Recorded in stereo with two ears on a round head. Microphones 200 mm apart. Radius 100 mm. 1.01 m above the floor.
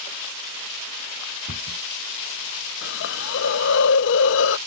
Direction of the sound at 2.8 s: 55° left (ahead or behind).